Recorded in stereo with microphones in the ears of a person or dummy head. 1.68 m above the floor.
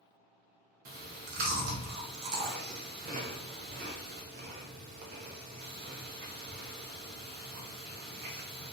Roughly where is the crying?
No crying in this recording.